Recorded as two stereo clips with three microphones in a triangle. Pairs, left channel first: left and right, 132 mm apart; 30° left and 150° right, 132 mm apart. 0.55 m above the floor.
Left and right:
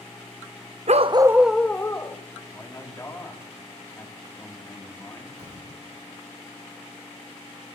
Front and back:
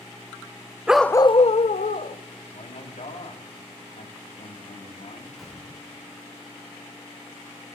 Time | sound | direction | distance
0.9 | a dog barking | 70° right | 0.5 m
2.5 | a man speaking | 25° left | 3.5 m
5.4 | a gunshot | 60° right | 6.5 m